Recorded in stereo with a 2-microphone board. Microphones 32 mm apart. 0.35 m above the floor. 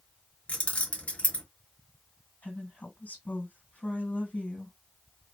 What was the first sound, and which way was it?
Keys jangling, 40° left (ahead or behind).